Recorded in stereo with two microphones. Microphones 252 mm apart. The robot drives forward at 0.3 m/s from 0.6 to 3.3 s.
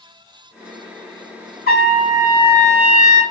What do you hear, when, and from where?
1.7 s a trumpet: 40° left (ahead or behind), 1.7 m; by 3.2 s 30° left (ahead or behind), 2.0 m